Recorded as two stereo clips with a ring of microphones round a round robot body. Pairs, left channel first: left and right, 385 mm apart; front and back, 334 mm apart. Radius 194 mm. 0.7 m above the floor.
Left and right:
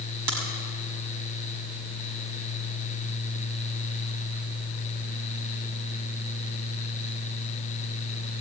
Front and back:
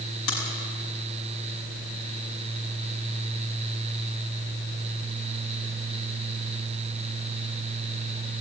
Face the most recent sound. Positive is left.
turn(degrees=-55)